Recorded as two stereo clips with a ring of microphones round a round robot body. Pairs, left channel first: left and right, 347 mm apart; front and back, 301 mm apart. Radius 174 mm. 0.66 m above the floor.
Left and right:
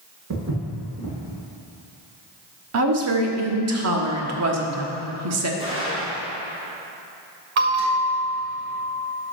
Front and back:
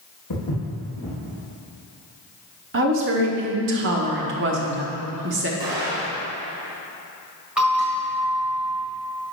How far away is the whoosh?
No whoosh in this recording.